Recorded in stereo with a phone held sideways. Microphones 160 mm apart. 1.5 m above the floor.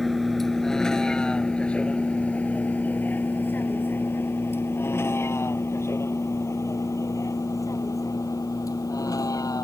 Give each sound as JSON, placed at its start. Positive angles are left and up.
{"t": 0.0, "sound": "a vehicle", "side_deg": 0}